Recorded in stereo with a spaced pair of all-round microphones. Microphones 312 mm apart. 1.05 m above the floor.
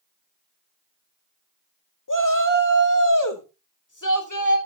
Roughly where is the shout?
Left.